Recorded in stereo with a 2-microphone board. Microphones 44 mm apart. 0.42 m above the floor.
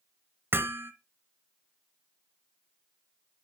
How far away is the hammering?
About 1.1 m.